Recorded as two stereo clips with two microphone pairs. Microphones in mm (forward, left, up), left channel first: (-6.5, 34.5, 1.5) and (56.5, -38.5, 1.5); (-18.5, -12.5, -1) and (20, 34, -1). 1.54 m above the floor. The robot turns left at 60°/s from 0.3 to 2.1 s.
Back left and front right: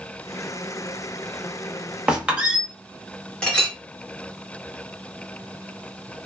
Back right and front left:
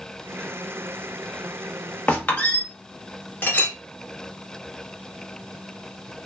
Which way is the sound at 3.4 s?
150° right.